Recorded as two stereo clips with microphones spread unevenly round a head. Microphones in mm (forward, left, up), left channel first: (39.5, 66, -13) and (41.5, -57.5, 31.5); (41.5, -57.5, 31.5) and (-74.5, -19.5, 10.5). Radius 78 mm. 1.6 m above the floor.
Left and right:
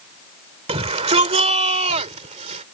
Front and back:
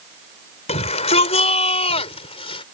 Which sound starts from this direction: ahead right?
A shout, at 0.7 s.